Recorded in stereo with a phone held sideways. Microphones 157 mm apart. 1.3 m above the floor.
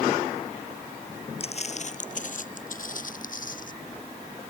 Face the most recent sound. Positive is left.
turn(degrees=60)  # may be behind; listen again after turning